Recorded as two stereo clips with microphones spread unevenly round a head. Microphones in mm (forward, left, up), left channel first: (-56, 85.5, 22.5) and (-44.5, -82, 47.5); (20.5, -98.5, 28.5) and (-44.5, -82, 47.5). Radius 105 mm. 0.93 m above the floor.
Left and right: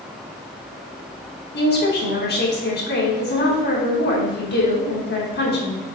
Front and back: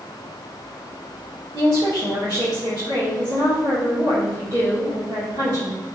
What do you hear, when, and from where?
1.5 s a woman speaking: 110° left, 3 m